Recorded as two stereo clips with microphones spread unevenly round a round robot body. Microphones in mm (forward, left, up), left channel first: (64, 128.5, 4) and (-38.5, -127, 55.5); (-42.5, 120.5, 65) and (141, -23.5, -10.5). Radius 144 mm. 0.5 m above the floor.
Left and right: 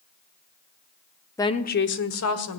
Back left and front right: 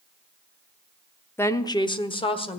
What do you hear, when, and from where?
1.4 s a woman speaking: 30° left, 0.8 m; by 2.6 s 65° left, 1.9 m